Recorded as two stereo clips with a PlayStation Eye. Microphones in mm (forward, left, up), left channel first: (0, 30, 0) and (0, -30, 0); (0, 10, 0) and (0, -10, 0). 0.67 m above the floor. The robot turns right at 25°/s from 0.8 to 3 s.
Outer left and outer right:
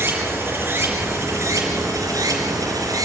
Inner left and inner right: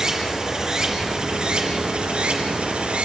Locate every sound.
0.0 s running water: 140° right, 4 m; by 3.0 s 85° right, 4 m